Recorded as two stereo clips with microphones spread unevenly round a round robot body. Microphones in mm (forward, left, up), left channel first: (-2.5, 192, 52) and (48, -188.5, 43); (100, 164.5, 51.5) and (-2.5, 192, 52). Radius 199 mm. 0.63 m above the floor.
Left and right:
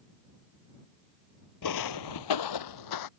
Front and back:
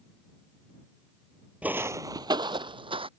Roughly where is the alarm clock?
I don't hear an alarm clock.